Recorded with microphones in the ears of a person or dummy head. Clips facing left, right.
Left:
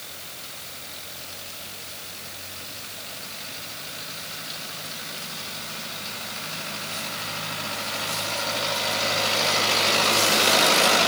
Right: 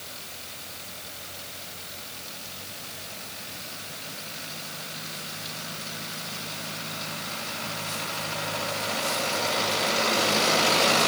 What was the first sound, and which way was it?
Only background noise.